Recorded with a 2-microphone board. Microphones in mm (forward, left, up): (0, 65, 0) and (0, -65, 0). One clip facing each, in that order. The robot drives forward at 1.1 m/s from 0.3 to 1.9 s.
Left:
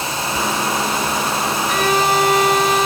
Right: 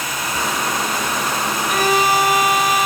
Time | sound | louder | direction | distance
1.7 | a violin | right 1 dB | 5° right (ahead or behind) | 2 m